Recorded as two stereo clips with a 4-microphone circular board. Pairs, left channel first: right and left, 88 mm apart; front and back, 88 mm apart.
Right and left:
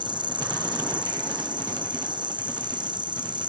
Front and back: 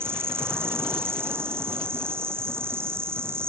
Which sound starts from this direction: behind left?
An insect, at 0.0 s.